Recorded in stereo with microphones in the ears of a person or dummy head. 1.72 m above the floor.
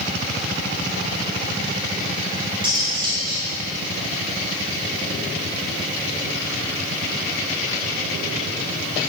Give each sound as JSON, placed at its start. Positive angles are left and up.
{"t": 2.6, "sound": "cutlery clinking", "side_deg": -25, "distance_m": 2.0}